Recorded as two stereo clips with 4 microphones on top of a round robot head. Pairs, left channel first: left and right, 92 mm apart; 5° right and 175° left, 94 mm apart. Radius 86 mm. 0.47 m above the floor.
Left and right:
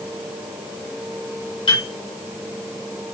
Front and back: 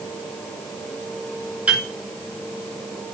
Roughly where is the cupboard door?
No cupboard door in this recording.